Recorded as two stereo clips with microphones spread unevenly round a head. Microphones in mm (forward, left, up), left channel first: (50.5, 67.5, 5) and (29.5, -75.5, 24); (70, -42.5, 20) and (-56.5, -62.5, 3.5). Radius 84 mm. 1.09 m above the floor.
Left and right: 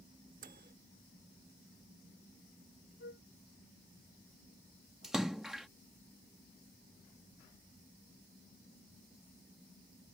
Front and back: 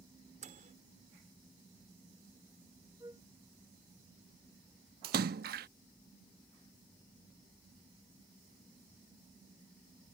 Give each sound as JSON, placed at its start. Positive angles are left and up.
{"t": 0.4, "sound": "a microwave", "azimuth_deg": -145}
{"t": 3.0, "sound": "a flute", "azimuth_deg": 115}
{"t": 5.0, "sound": "a splash", "azimuth_deg": 175}